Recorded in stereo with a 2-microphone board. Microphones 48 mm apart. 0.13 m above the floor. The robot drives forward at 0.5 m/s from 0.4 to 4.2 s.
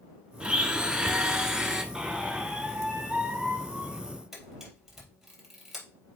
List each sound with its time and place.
0.4 s a blender: 20° right (ahead or behind), 0.7 m; by 1.8 s 15° right (ahead or behind), 1.0 m
1.9 s a squeak: 10° right (ahead or behind), 2.5 m; by 4.0 s 20° right (ahead or behind), 1.3 m
4.3 s a camera shutter: 5° right (ahead or behind), 4 m